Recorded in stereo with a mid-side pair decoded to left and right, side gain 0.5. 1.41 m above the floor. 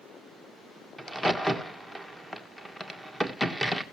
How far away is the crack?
About 1.7 m.